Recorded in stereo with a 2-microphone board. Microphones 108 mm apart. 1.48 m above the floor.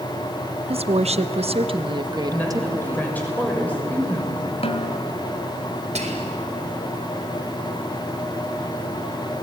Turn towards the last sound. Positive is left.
turn(degrees=-80)